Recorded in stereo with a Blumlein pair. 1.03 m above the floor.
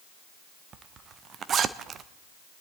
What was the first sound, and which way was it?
A zipper, 25° right.